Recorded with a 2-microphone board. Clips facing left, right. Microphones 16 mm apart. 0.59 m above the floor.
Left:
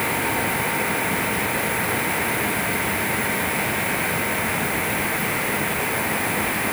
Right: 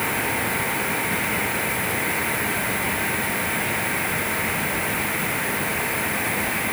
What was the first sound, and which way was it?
Only background noise.